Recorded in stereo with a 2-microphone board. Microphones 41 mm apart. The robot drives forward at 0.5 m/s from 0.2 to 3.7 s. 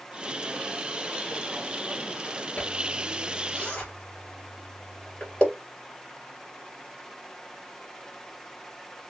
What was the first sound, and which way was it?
A zipper, 25° left (ahead or behind).